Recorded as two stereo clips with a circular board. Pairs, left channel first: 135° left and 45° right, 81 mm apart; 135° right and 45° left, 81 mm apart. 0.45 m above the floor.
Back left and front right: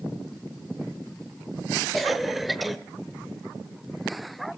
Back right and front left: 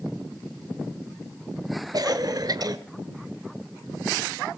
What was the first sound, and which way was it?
A cough, 45° left.